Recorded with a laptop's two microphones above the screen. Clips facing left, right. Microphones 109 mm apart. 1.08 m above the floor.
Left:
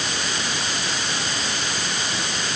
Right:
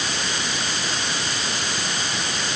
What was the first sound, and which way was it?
Only background noise.